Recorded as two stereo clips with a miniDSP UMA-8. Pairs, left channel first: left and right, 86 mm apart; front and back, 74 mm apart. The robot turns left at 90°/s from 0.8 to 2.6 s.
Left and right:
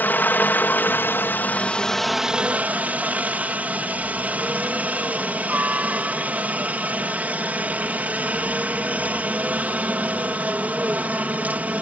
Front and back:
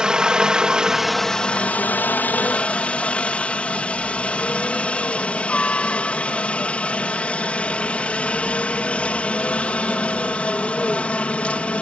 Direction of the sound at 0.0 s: 115° left.